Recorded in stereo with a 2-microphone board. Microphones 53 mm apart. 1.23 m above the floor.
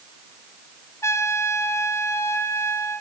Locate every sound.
1.0 s a trumpet: 65° left (ahead or behind), 3.5 m